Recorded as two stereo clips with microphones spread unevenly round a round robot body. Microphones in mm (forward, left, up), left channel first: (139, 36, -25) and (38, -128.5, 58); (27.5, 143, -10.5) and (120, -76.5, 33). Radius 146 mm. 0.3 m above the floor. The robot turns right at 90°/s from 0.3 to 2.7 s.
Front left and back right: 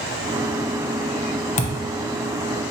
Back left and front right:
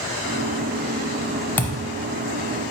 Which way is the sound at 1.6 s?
35° left.